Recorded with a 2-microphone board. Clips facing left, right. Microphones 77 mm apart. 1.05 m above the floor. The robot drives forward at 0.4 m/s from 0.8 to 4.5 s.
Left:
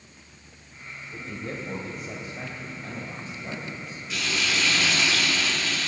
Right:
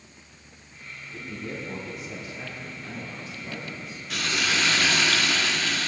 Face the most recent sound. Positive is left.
turn(degrees=-50)  # may be behind; listen again after turning